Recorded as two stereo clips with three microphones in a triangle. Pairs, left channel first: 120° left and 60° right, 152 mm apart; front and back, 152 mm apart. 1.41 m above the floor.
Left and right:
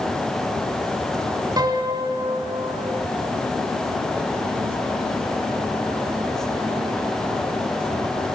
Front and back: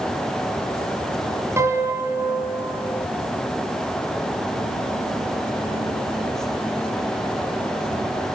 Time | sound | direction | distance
1.6 | a piano | 115° right | 1.7 m